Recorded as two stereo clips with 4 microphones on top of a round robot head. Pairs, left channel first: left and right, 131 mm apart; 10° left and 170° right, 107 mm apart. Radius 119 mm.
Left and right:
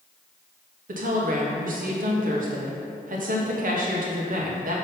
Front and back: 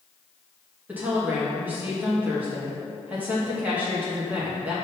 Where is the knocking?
No knocking in this recording.